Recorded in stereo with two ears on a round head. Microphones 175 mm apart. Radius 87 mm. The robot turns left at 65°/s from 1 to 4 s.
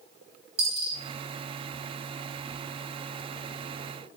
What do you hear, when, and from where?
0.6 s a dropped coin: 30° right (ahead or behind), 0.9 m